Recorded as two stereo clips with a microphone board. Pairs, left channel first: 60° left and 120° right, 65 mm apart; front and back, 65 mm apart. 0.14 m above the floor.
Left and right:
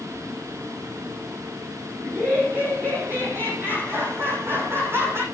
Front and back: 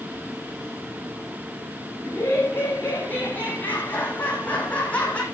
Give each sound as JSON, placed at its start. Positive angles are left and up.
{"t": 2.0, "sound": "laughter", "azimuth_deg": -55, "distance_m": 7.0}